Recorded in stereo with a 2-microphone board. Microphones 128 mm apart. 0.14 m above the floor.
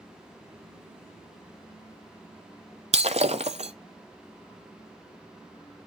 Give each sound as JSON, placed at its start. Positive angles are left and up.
{"t": 2.9, "sound": "breaking glass", "side_deg": -60, "distance_m": 0.5}